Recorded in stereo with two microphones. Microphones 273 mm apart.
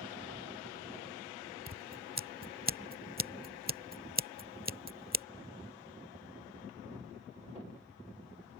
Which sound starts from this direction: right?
Scissors, at 1.7 s.